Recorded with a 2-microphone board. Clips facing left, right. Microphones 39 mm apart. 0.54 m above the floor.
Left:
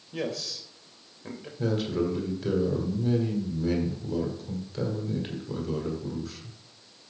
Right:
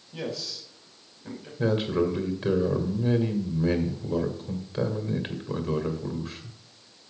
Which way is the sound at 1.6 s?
30° right (ahead or behind).